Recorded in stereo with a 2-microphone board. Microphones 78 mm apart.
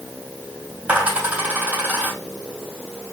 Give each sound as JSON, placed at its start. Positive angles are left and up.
{"t": 0.9, "sound": "a dropped coin", "side_deg": -15, "distance_m": 3.5}